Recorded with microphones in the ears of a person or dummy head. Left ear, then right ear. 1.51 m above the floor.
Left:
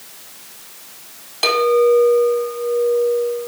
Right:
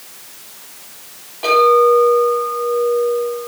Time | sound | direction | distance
1.4 | a clink | 85° left | 3.5 m